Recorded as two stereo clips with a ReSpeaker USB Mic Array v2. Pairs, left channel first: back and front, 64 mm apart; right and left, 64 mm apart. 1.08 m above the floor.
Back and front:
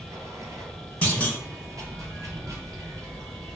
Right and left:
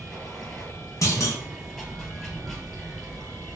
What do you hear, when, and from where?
0.0 s running water: 5° right, 1.8 m
1.0 s a clunk: 115° right, 0.6 m